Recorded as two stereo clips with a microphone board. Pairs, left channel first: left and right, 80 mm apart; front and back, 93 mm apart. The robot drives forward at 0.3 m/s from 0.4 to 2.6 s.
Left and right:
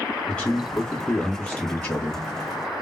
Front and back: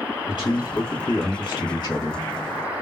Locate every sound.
0.3 s a man speaking: 25° left, 1.8 m; by 2.2 s 35° left, 1.4 m